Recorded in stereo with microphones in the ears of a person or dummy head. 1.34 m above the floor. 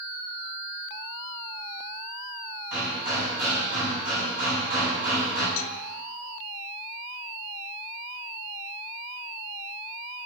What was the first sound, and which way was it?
Hammering, 45° right (ahead or behind).